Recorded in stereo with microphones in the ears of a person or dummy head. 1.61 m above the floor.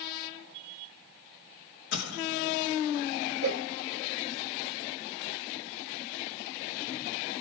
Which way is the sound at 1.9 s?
75° left (ahead or behind).